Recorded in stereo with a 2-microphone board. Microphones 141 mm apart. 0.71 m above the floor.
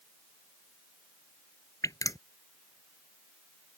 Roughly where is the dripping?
Left.